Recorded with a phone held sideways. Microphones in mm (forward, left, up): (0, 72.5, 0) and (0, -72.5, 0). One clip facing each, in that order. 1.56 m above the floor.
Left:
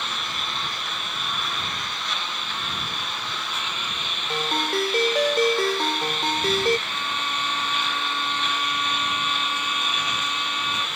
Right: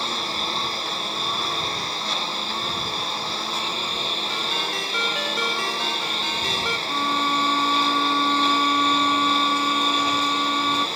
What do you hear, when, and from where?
0.0 s a lawn mower: 35° right (ahead or behind)
4.3 s a ringtone: 45° left (ahead or behind)
6.9 s a violin: 60° right (ahead or behind)